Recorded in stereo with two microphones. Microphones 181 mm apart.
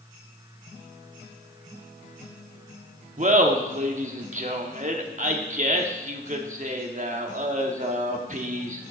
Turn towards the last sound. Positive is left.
turn(degrees=-45)  # may be behind; listen again after turning